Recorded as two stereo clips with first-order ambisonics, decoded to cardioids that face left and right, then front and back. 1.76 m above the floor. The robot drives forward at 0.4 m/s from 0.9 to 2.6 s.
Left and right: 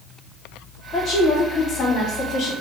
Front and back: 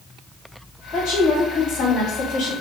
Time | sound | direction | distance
0.9 | a woman speaking | 30° left | 1.2 m